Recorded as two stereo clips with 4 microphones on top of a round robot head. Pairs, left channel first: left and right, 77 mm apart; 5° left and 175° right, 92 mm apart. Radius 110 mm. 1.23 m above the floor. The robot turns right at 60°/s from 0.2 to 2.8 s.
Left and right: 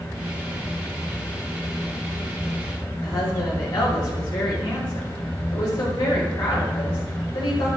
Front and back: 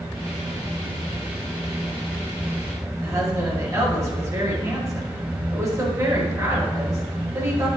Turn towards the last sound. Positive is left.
turn(degrees=130)